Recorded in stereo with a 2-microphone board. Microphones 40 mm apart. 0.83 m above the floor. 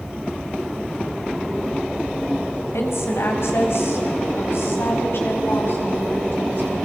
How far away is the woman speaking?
About 5 m.